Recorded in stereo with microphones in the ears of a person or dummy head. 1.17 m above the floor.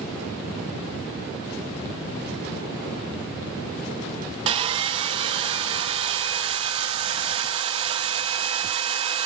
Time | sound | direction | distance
4.5 | sawing | 30° right (ahead or behind) | 0.7 m